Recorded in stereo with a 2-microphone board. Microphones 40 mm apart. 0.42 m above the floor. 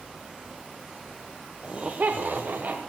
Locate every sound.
1.6 s laughter: 30° right (ahead or behind), 1.2 m; by 2.8 s 45° right (ahead or behind), 1.6 m